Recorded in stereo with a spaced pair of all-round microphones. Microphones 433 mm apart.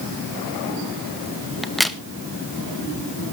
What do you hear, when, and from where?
1.6 s a crack: centre (ahead or behind), 0.9 m